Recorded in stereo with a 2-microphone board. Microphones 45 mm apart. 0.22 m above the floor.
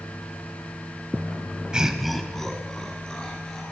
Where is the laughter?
20° right (ahead or behind), 1.0 m; by 3.6 s 25° left (ahead or behind), 3 m.